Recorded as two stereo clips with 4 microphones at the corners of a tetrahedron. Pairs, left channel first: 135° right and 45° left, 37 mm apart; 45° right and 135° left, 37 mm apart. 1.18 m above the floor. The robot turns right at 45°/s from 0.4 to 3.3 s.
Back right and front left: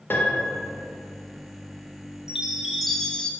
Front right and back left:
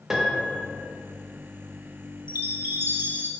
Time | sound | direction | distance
0.1 | a piano | 150° right | 0.8 m
2.3 | a chime | 115° left | 0.5 m